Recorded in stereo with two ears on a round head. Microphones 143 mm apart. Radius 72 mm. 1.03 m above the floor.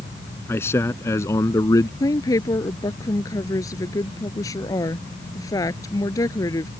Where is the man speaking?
15° left (ahead or behind); by 1.9 s 20° left (ahead or behind).